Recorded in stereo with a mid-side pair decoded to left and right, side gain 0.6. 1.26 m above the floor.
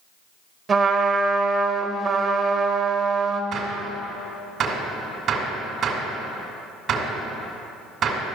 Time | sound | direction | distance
0.7 | a trumpet | 35° right | 1.2 m
3.5 | a gunshot | 55° right | 2 m